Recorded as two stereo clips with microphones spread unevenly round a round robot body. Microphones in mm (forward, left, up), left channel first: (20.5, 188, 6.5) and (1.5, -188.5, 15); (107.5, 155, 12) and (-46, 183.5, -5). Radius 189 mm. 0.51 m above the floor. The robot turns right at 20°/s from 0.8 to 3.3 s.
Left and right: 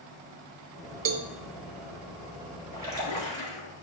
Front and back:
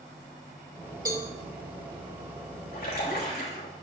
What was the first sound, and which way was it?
A cowbell, 130° right.